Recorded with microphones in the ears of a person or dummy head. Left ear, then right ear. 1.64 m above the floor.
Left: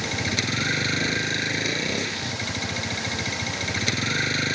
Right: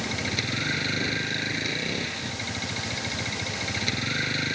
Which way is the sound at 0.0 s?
25° left (ahead or behind).